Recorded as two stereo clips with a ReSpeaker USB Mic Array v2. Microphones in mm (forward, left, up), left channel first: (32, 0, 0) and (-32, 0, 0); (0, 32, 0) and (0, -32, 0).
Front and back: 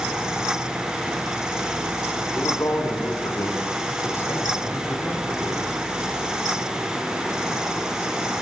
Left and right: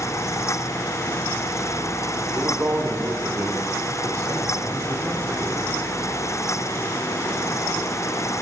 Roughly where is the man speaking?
Ahead right.